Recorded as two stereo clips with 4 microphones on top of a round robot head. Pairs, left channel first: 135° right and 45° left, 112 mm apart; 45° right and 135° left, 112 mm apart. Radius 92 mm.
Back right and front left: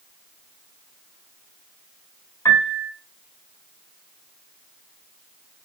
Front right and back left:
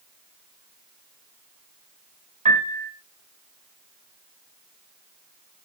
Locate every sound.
2.5 s a piano: 160° left, 4 m